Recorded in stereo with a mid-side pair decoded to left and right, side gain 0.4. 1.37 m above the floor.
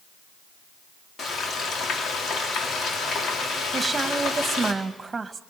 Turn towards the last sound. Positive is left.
turn(degrees=-30)